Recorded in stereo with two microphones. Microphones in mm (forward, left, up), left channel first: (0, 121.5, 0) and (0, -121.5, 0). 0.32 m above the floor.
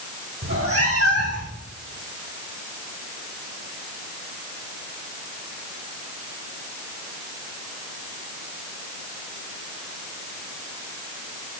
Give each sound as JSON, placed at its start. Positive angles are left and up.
{"t": 0.4, "sound": "a cat meowing", "side_deg": -60, "distance_m": 2.5}